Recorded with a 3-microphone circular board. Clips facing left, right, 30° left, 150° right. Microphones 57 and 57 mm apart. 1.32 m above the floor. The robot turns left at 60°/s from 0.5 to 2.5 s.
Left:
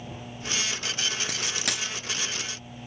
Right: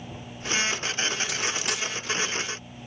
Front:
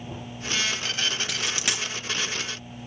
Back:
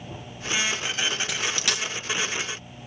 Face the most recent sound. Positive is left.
turn(degrees=50)